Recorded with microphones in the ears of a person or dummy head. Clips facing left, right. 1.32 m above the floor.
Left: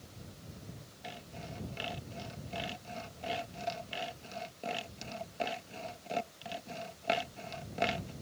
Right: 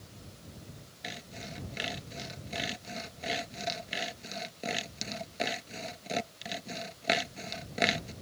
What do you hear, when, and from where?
1.0 s sawing: 25° right (ahead or behind)